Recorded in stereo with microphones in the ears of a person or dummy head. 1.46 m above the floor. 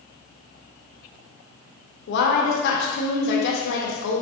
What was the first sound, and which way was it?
A woman speaking, 60° left (ahead or behind).